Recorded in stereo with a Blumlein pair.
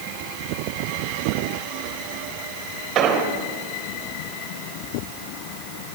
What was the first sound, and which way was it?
An explosion, 35° right.